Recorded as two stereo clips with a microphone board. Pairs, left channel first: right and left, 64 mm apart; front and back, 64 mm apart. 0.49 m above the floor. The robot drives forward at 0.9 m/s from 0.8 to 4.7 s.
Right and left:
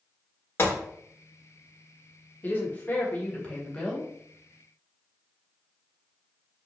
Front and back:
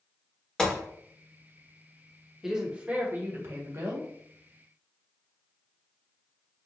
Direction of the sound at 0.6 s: 75° right.